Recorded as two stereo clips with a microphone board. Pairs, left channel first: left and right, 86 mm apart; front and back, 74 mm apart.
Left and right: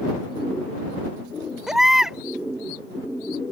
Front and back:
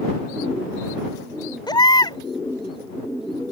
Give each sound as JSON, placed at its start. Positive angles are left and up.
{"t": 1.7, "sound": "a baby crying", "azimuth_deg": -5}